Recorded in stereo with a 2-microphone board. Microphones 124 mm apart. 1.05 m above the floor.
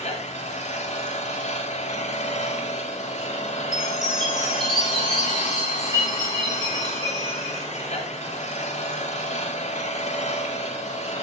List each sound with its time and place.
0.0 s an engine running: 70° left (ahead or behind), 4 m
3.7 s a chime: 35° right (ahead or behind), 5 m